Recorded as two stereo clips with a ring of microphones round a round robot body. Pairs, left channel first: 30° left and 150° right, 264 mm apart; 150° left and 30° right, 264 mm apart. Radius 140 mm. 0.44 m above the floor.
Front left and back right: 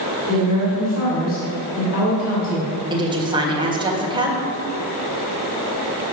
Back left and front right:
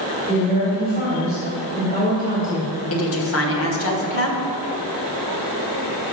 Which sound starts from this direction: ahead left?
A woman speaking, at 0.3 s.